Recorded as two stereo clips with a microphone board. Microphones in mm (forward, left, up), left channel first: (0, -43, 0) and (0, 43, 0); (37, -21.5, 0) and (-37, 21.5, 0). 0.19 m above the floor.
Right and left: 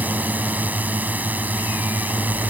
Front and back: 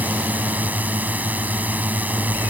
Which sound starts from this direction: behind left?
A drone, at 0.0 s.